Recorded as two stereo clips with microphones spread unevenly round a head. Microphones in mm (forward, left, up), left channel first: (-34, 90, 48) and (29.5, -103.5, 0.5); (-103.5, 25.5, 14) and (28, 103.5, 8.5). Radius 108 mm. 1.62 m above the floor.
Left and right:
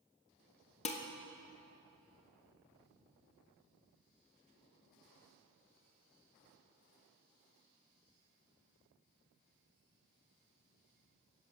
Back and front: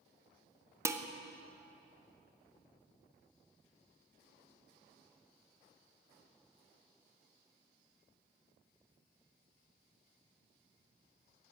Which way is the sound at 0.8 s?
95° left.